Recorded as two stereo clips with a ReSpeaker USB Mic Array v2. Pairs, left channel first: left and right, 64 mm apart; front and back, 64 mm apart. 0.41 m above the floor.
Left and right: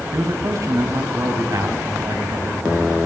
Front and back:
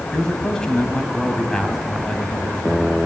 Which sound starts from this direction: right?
A man speaking, at 0.1 s.